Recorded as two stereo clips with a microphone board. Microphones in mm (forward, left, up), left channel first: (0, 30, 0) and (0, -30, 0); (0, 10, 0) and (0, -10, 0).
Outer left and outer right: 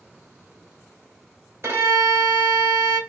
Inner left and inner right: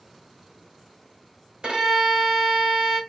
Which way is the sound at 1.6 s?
45° right (ahead or behind).